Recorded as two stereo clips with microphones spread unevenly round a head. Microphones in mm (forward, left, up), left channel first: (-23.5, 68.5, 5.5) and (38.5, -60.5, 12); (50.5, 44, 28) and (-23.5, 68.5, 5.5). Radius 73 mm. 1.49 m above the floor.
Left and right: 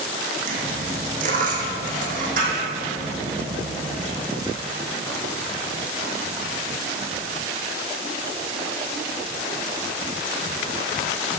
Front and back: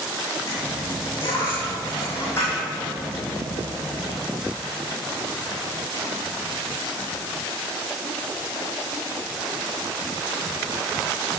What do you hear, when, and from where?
0.5 s a dropped coin: 70° right, 2.5 m